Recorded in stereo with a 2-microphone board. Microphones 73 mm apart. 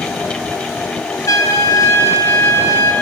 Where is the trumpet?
45° left (ahead or behind), 1.1 m.